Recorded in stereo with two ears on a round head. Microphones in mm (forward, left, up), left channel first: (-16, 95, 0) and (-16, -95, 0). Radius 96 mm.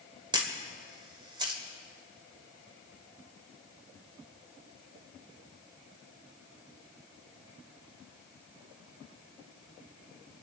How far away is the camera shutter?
About 1.9 m.